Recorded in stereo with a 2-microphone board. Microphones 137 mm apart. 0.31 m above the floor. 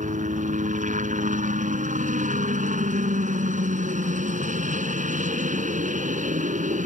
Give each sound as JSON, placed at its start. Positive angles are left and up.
{"t": 0.0, "sound": "a helicopter", "side_deg": -65}